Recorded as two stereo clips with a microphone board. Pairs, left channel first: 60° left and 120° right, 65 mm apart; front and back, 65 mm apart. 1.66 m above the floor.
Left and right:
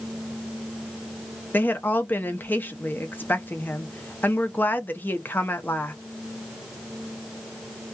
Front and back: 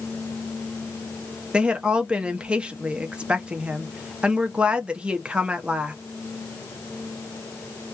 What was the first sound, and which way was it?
A woman speaking, 110° left.